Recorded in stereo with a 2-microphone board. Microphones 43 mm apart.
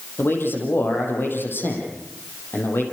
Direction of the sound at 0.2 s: 60° left (ahead or behind).